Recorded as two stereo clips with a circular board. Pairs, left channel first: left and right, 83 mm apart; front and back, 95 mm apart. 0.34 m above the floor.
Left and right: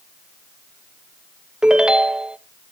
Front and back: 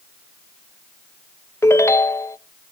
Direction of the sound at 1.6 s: 20° right.